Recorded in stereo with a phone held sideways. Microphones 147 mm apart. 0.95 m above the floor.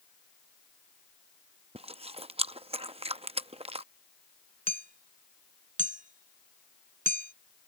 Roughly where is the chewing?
Right.